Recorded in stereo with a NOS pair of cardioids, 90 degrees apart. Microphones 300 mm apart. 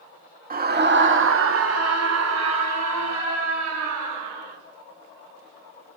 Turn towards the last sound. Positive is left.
turn(degrees=-80)